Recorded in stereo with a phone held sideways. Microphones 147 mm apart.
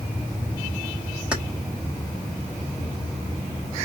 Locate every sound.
1.3 s keys jangling: 5° right (ahead or behind), 1.0 m